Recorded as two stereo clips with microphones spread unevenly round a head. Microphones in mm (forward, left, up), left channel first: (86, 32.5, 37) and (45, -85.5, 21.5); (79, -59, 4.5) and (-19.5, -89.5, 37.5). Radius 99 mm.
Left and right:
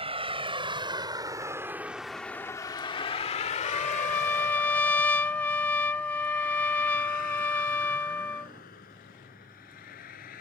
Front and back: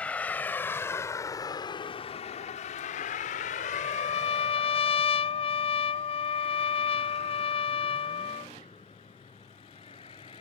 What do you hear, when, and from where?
0.0 s a vehicle: 65° right; by 10.4 s 85° left
3.6 s a trumpet: 5° right